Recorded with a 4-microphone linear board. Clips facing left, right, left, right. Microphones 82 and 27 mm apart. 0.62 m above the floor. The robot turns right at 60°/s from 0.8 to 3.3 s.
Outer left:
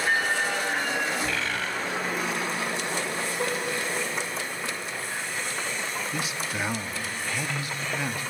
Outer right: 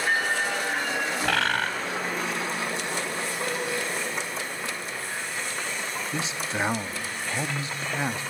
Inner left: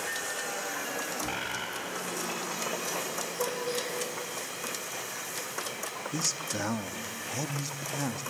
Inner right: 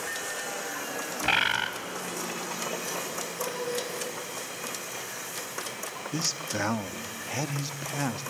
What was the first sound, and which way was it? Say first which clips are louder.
A bird: outer right 4 dB, inner right 9 dB; 75° right (ahead or behind).